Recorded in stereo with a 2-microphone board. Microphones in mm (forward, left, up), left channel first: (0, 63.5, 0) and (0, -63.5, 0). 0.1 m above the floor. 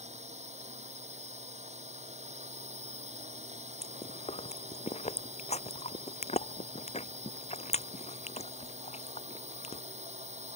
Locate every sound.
0.0 s a drone: 65° right (ahead or behind)
3.8 s chewing: 60° left (ahead or behind)